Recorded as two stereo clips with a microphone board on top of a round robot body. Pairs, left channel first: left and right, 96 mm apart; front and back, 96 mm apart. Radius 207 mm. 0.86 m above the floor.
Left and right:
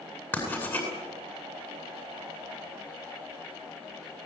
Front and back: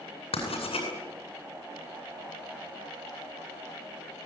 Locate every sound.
0.3 s writing: 20° left, 8.5 m